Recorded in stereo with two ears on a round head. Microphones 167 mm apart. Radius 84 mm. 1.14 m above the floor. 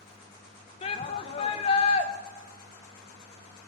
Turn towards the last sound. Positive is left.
turn(degrees=35)  # may be behind; listen again after turning